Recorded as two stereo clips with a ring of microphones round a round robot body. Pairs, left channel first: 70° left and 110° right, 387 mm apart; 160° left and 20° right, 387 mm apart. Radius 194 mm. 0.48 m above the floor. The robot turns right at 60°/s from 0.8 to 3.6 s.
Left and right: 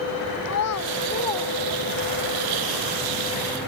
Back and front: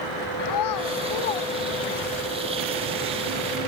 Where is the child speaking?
120° left; by 2.3 s 155° right.